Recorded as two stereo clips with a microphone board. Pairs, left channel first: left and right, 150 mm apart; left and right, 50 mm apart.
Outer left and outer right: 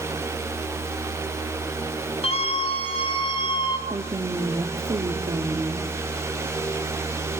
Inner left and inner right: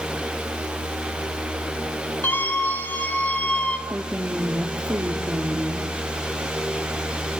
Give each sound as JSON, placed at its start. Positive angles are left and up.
{"t": 2.2, "sound": "a scream", "side_deg": 40, "distance_m": 4.5}
{"t": 3.9, "sound": "a woman speaking", "side_deg": -30, "distance_m": 1.1}